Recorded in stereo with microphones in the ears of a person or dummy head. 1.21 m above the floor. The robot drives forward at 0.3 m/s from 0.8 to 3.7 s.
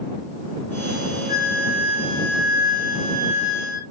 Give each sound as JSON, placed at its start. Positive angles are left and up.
{"t": 1.3, "sound": "a flute", "side_deg": -15, "distance_m": 0.6}